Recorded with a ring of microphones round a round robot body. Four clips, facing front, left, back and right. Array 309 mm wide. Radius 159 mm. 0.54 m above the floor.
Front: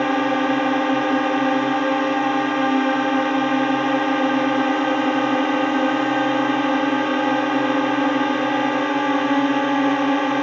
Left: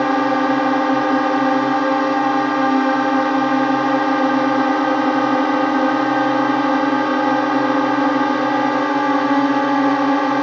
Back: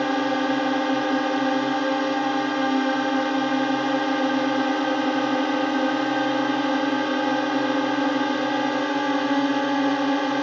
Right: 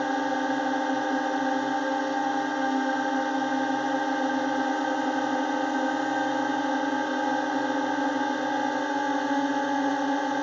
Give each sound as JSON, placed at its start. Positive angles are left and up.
{"t": 0.0, "sound": "a drone", "azimuth_deg": 75}